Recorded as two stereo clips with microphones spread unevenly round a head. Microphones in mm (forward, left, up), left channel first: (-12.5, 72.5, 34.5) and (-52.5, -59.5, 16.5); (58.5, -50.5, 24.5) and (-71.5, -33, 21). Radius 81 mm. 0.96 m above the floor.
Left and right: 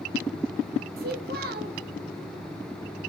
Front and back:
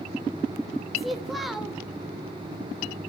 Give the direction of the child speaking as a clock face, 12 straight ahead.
3 o'clock.